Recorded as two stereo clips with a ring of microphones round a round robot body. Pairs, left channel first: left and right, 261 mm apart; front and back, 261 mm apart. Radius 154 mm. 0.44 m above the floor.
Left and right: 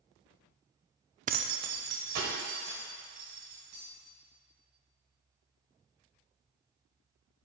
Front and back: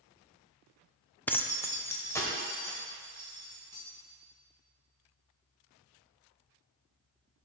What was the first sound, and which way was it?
Keys jangling, 75° right.